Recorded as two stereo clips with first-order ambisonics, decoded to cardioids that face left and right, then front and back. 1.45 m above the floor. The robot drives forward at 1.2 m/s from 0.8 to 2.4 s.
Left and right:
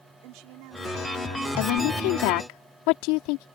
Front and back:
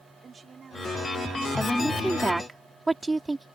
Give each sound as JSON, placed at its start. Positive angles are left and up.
{"t": 0.2, "sound": "a woman speaking", "azimuth_deg": -110}
{"t": 1.6, "sound": "a woman speaking", "azimuth_deg": 85}